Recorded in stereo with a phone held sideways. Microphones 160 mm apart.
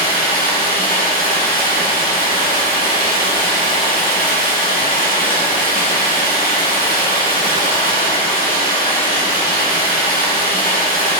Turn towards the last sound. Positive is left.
turn(degrees=65)  # may be behind; listen again after turning